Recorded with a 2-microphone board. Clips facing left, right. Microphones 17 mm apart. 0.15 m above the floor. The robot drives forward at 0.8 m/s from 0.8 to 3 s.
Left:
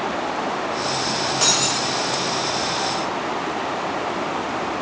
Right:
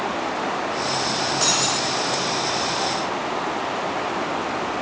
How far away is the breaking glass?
About 8.5 m.